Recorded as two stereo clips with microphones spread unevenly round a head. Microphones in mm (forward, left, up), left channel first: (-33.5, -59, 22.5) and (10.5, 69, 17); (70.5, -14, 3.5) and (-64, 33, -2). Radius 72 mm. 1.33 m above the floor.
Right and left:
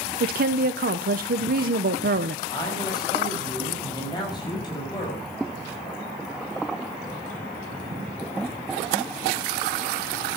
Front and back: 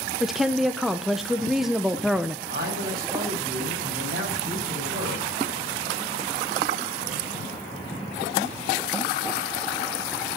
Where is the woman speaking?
75° left, 0.9 m.